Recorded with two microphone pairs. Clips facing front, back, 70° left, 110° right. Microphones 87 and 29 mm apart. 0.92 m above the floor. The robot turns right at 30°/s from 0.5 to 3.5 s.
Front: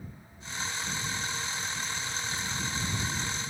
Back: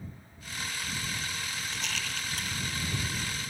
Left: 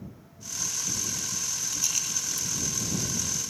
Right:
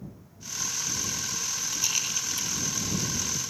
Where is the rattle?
175° left; by 2.5 s 160° right.